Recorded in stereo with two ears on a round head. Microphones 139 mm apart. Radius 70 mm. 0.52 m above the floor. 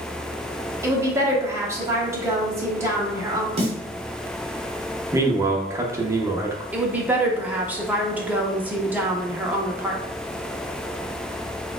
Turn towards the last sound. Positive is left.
turn(degrees=-10)  # may be behind; listen again after turning